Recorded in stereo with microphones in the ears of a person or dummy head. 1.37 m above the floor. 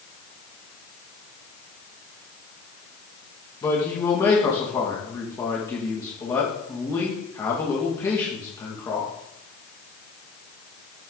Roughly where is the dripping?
I don't hear dripping.